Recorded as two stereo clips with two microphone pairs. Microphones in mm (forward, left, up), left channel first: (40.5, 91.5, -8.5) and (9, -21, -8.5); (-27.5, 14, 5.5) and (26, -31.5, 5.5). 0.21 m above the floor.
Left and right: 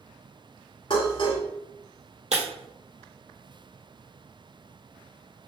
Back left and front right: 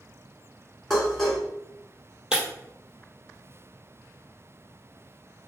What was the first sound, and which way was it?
Dishes clattering, 55° left.